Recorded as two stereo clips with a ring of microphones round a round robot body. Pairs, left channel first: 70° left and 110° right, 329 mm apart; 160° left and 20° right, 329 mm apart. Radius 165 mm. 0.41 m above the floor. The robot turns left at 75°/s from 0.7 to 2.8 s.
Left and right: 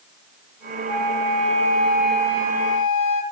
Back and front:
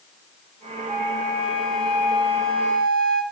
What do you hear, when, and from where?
0.9 s a flute: 110° right, 2.0 m; by 3.2 s 105° left, 2.0 m